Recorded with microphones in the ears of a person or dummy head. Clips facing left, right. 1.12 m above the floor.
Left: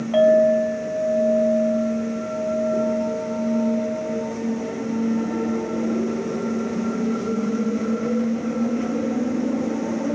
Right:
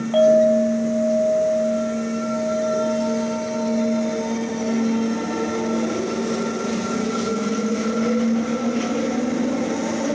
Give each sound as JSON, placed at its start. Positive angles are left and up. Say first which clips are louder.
{"t": 0.1, "sound": "a clink", "louder": "right 1 dB", "side_deg": 30, "distance_m": 1.5}